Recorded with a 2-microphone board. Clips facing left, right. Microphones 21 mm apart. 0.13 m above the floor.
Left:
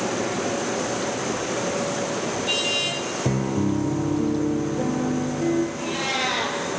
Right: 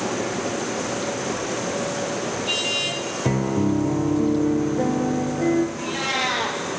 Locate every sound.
3.2 s a piano: 30° right (ahead or behind), 1.3 m
5.8 s a cat meowing: centre (ahead or behind), 2.0 m